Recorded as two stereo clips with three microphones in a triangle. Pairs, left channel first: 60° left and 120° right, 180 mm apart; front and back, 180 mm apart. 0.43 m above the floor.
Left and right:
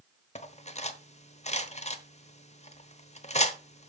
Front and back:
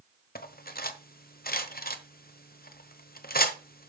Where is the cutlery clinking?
15° left, 1.0 m.